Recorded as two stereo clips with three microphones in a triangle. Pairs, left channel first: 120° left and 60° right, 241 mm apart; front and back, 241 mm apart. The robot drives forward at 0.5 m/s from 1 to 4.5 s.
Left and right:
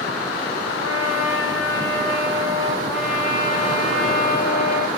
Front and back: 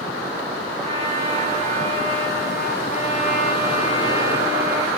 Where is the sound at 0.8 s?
115° left, 5 m; by 2.8 s 125° left, 5.5 m.